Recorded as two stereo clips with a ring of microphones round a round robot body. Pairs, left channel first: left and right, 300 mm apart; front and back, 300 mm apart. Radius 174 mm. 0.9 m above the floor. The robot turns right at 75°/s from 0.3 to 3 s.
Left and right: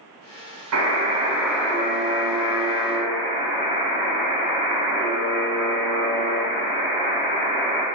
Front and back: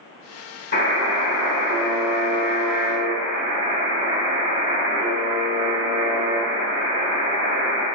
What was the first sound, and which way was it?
A buzzer, 60° right.